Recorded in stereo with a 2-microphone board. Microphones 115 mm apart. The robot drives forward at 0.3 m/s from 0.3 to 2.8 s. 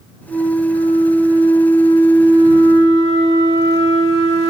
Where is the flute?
50° left (ahead or behind), 1.3 m; by 4.5 s 85° left, 1.0 m.